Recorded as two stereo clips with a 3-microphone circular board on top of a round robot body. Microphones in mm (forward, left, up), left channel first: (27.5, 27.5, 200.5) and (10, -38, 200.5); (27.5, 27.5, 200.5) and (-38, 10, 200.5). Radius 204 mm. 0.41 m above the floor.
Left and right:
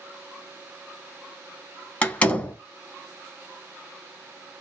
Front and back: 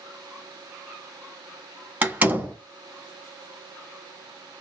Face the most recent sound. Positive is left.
turn(degrees=135)